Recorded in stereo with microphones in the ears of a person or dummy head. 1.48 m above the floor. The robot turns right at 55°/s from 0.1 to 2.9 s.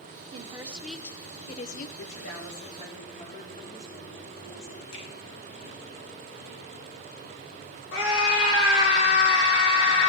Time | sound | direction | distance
0.3 | a woman speaking | 30° right | 0.9 m
2.0 | a woman speaking | 85° left | 4 m
4.9 | a finger snap | 80° left | 4.5 m
7.9 | a scream | 80° left | 4 m